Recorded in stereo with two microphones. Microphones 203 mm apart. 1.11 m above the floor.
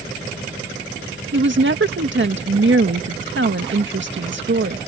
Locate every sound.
1.3 s a woman speaking: 65° right (ahead or behind)